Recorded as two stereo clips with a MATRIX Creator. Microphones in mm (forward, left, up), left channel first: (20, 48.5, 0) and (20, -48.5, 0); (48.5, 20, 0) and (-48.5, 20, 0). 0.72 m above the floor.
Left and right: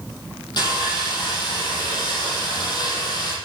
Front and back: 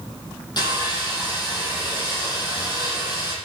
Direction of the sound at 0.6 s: 45° left.